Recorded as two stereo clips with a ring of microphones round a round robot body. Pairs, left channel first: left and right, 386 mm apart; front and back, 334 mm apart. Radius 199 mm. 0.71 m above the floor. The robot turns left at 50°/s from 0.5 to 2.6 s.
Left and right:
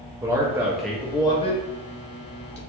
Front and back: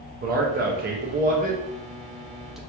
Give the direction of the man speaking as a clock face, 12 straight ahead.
5 o'clock.